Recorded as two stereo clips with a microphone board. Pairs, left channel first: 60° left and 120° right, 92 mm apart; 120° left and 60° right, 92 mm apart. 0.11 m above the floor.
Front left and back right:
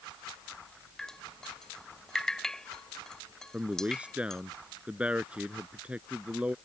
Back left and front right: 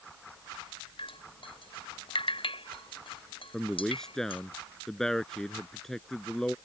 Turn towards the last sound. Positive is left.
turn(degrees=-165)